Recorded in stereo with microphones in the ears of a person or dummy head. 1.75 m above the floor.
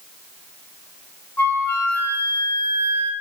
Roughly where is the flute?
Centre.